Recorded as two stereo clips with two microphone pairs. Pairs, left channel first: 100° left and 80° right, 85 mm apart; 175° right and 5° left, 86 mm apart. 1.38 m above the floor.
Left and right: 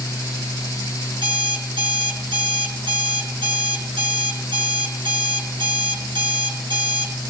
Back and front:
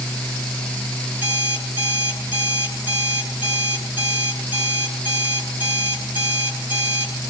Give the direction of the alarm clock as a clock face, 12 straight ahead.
2 o'clock.